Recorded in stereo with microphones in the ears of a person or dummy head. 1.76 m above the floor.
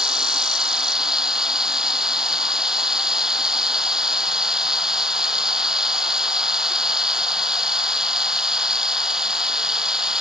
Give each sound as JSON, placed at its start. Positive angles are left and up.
{"t": 0.0, "sound": "running water", "side_deg": -5}